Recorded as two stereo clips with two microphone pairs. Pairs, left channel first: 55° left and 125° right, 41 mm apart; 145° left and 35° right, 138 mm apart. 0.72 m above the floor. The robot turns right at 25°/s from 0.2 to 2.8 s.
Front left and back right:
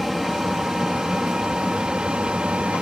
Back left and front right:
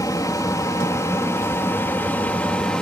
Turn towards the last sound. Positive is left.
turn(degrees=-140)